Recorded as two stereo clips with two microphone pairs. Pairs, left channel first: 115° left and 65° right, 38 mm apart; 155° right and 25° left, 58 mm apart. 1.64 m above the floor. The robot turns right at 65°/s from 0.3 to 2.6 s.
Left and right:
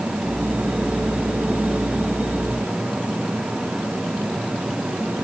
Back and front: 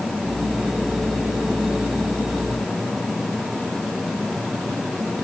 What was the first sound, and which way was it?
Only background noise.